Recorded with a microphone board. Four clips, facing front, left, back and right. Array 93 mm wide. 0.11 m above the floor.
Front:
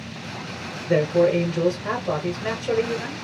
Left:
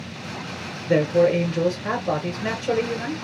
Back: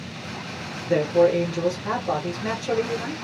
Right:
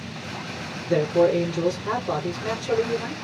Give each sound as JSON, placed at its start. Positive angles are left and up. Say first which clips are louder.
{"t": 0.9, "sound": "a man speaking", "louder": "left 1 dB, even", "azimuth_deg": 65, "distance_m": 1.8}